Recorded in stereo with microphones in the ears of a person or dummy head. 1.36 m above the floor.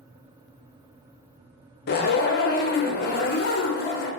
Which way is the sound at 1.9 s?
45° left (ahead or behind).